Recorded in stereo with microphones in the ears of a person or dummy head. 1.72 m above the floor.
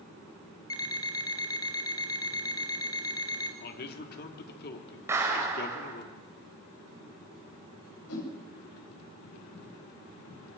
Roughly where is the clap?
Centre.